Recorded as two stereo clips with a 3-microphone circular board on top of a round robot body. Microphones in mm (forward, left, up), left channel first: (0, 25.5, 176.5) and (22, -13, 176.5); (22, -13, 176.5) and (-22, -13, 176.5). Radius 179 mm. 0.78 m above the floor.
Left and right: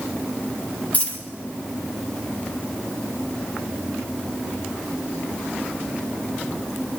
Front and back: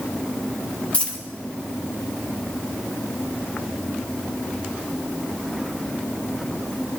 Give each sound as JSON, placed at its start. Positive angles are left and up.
{"t": 0.9, "sound": "a dropped coin", "azimuth_deg": 65, "distance_m": 2.5}